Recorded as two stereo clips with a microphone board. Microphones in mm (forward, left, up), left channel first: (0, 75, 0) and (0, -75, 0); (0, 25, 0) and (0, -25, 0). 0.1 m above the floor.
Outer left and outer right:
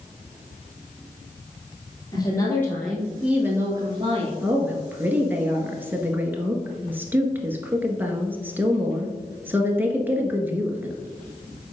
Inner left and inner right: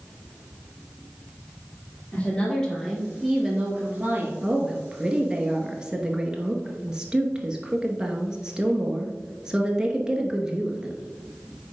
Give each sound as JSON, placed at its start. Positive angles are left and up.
{"t": 2.1, "sound": "a woman speaking", "side_deg": 25, "distance_m": 2.5}
{"t": 4.4, "sound": "a woman speaking", "side_deg": -15, "distance_m": 1.4}